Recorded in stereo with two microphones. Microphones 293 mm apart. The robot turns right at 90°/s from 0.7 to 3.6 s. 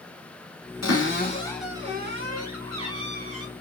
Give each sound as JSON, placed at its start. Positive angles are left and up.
{"t": 0.8, "sound": "a cupboard door", "azimuth_deg": 110, "distance_m": 1.7}